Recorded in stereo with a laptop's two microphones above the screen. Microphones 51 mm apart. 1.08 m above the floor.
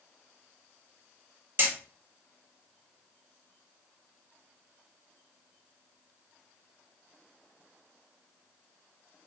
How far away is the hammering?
About 1.0 m.